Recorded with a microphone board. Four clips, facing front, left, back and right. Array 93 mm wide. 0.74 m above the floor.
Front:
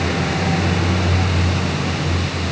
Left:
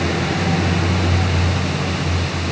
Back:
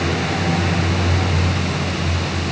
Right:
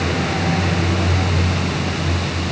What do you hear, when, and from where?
Only background noise.